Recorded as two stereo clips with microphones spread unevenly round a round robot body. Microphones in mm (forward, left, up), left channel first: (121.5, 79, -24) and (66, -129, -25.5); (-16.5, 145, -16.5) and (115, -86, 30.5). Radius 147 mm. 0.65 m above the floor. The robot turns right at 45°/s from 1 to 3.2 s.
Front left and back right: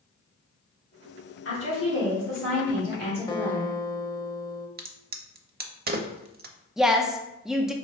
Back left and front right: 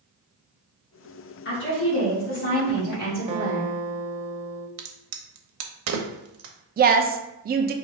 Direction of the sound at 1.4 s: 95° left.